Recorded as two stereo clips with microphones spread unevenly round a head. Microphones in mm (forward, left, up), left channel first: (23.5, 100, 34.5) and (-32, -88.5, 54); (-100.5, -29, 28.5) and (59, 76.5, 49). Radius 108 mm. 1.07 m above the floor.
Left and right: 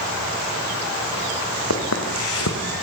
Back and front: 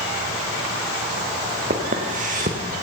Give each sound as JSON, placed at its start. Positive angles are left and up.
{"t": 1.7, "sound": "footsteps", "azimuth_deg": 80, "distance_m": 5.0}